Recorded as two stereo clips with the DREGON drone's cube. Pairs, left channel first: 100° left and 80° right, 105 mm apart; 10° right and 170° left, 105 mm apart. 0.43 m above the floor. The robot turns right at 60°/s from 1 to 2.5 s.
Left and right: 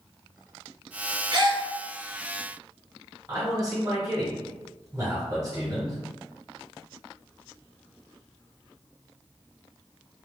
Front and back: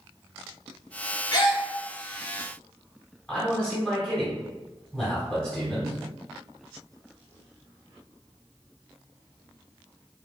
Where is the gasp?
55° right, 1.1 m; by 1.6 s 35° right, 1.1 m.